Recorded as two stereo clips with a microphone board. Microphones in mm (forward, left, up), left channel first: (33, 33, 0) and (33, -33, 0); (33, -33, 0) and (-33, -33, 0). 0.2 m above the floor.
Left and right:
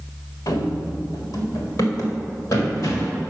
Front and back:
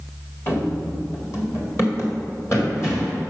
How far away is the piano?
No piano in this recording.